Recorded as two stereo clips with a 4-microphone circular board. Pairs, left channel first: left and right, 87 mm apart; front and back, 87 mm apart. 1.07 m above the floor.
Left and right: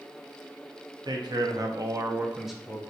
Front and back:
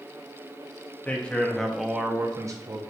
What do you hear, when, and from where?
1.1 s a man speaking: 70° right, 0.9 m; by 2.8 s 165° left, 0.6 m